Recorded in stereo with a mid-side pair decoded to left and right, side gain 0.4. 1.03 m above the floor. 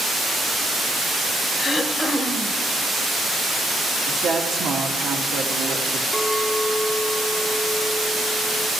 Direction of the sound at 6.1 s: 5° left.